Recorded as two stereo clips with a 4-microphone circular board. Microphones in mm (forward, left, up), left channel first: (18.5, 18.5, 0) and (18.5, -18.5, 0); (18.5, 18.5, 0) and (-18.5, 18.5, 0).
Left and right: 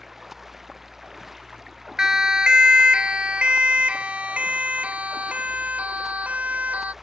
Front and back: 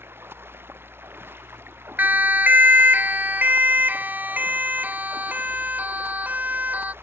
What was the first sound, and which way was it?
Running water, 170° right.